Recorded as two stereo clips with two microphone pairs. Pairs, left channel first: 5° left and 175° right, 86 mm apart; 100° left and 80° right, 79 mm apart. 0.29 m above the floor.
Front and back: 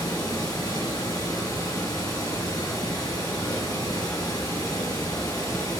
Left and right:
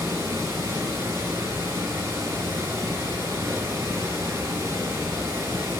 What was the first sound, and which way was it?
Running water, 30° right.